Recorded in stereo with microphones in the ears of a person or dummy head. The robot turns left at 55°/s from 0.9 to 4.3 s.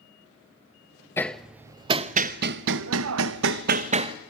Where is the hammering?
10° left (ahead or behind), 0.7 m; by 4.2 s 25° right (ahead or behind), 0.7 m.